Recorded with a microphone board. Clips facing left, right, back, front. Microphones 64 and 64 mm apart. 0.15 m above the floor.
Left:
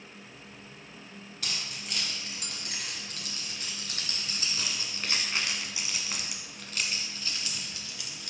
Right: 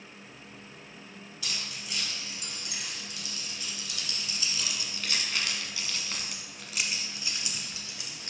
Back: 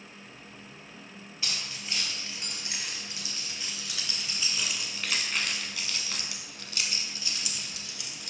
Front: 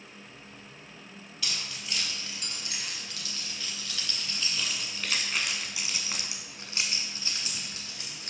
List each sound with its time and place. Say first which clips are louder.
1.4 s keys jangling: left 1 dB, even; 120° left, 3 m; by 8.3 s 35° right, 1.7 m